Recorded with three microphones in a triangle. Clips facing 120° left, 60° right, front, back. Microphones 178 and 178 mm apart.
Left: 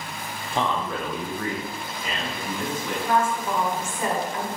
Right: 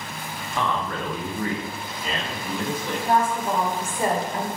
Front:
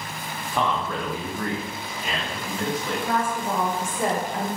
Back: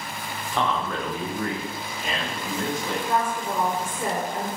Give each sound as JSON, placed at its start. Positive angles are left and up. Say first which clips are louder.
{"t": 0.5, "sound": "a man speaking", "louder": "left 1 dB, even", "azimuth_deg": 80, "distance_m": 0.6}
{"t": 3.0, "sound": "a woman speaking", "louder": "right 2 dB, even", "azimuth_deg": 0, "distance_m": 0.6}